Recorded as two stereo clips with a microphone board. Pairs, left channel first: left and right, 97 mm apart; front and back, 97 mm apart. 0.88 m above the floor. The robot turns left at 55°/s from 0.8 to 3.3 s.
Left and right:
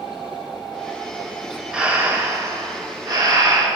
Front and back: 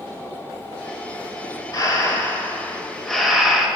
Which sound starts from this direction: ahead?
Breathing, at 1.7 s.